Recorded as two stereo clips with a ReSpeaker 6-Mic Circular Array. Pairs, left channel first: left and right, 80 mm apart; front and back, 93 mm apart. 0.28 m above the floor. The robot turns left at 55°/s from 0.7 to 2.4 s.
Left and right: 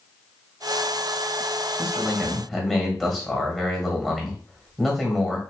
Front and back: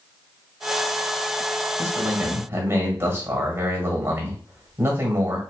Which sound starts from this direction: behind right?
A man speaking, at 1.8 s.